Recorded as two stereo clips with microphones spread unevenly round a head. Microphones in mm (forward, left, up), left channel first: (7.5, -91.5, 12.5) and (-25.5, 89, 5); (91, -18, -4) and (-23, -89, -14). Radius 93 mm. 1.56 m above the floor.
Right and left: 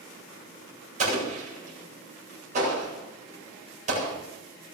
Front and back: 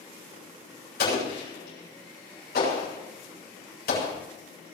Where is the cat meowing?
I don't hear a cat meowing.